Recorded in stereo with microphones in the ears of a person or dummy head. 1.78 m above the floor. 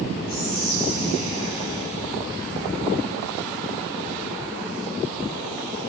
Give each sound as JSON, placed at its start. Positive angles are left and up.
{"t": 0.3, "sound": "whispering", "side_deg": 30, "distance_m": 3.0}